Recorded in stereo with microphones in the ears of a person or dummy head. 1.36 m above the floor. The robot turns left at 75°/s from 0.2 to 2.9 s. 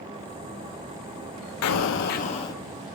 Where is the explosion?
85° left, 0.6 m; by 2.6 s 10° left, 0.6 m.